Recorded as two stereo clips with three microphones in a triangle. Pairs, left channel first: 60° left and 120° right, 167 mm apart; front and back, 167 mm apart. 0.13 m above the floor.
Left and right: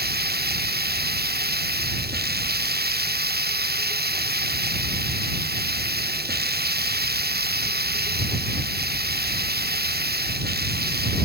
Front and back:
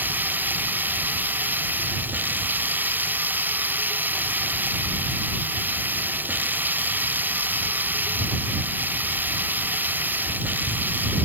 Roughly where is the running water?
Right.